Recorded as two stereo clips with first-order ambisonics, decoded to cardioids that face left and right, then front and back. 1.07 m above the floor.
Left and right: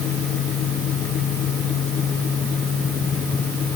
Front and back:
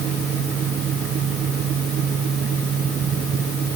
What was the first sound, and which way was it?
Only background noise.